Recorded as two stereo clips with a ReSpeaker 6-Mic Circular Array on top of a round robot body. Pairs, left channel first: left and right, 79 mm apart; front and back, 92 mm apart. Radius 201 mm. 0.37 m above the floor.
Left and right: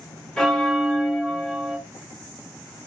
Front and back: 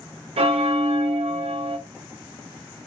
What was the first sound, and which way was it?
A bell, 175° left.